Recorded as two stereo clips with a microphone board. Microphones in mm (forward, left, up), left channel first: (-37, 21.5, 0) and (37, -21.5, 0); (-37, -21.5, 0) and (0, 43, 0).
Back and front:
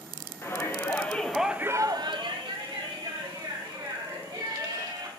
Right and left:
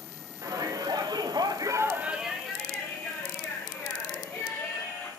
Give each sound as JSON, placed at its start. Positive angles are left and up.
{"t": 0.4, "sound": "a shout", "azimuth_deg": 90, "distance_m": 1.3}